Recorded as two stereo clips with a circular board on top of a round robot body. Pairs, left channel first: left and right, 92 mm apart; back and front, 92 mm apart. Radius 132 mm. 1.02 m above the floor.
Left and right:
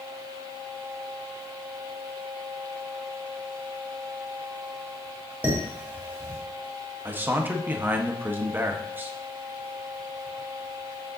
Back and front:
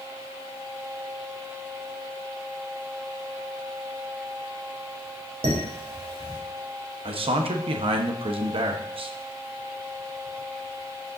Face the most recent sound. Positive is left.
turn(degrees=-20)